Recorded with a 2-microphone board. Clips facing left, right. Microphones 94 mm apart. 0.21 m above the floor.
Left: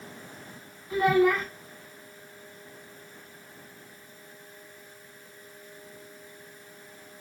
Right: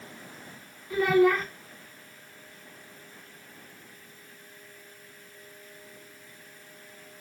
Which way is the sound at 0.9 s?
20° left (ahead or behind).